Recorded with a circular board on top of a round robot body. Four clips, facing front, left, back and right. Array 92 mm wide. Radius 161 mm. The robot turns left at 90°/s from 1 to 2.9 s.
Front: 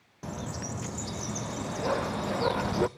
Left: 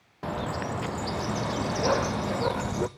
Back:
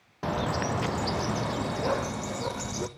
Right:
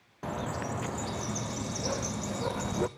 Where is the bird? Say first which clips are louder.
Left 3 dB, back 9 dB; 165° left, 0.6 m; by 2.9 s straight ahead, 0.6 m.